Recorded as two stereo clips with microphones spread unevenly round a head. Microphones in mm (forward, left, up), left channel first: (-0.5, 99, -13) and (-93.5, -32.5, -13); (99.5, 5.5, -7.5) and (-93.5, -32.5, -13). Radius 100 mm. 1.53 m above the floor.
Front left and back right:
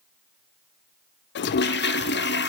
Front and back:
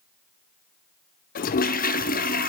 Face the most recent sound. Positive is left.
turn(degrees=60)